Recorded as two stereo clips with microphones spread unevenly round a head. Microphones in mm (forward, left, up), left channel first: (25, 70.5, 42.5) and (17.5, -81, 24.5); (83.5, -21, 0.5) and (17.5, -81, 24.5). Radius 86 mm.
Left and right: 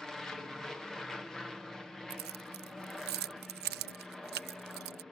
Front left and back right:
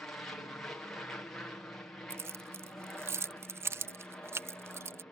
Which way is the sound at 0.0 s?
10° right.